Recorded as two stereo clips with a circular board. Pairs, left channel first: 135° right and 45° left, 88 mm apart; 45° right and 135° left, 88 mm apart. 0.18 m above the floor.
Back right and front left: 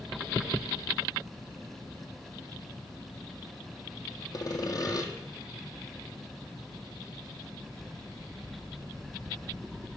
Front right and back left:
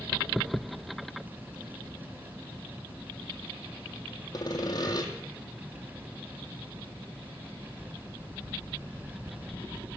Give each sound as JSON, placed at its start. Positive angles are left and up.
{"t": 4.3, "sound": "sawing", "azimuth_deg": -90, "distance_m": 1.9}